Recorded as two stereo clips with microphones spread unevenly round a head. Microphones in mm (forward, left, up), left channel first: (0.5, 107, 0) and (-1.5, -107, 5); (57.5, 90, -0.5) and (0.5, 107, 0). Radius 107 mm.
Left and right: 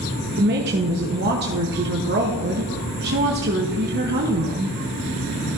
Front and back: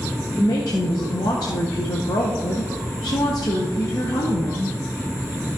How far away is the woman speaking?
About 0.9 m.